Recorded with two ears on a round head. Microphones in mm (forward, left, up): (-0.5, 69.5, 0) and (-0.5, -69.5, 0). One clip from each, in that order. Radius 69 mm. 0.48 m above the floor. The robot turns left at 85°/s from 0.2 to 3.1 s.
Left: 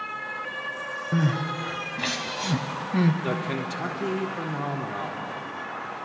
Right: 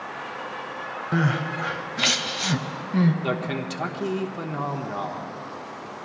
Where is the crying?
40° right (ahead or behind), 0.7 m; by 3.1 s 25° left (ahead or behind), 0.7 m.